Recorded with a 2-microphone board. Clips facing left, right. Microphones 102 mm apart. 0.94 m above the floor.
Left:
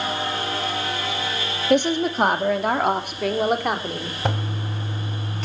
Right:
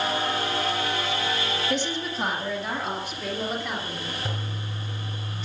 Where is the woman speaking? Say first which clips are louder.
Left 9 dB; 55° left (ahead or behind), 1.9 m; by 4.1 s 65° left (ahead or behind), 3.5 m.